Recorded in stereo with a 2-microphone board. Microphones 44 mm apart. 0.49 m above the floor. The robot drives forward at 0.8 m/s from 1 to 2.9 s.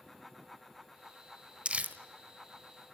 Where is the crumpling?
30° right (ahead or behind), 0.7 m; by 2.0 s 40° right (ahead or behind), 0.5 m.